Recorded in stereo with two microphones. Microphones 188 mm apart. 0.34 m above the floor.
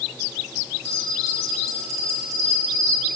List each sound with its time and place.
0.8 s a bell: 15° right (ahead or behind), 1.4 m